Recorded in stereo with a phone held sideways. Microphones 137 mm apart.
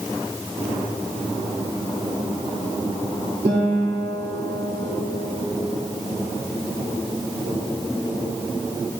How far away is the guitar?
About 2.5 m.